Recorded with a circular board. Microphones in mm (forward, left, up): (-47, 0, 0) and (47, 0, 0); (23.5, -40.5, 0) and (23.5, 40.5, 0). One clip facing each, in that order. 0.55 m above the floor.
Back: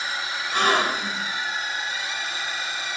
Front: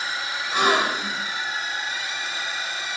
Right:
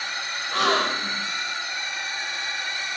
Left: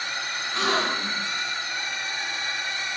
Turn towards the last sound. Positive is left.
turn(degrees=-75)